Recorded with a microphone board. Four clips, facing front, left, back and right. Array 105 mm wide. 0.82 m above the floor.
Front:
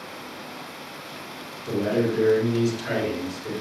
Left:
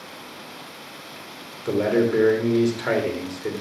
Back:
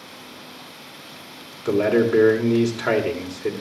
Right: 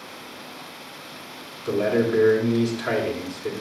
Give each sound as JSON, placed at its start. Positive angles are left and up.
{"t": 1.6, "sound": "a man speaking", "azimuth_deg": 160, "distance_m": 3.0}